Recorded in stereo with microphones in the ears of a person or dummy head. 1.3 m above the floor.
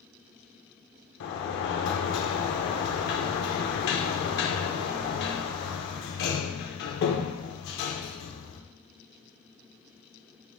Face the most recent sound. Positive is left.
turn(degrees=65)  # may be behind; listen again after turning